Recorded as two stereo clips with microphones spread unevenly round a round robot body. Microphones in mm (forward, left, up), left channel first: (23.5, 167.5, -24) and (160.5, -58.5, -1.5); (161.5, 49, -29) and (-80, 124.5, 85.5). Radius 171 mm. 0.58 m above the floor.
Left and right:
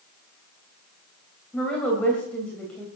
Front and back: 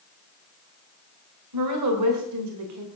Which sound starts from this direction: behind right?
A woman speaking, at 1.5 s.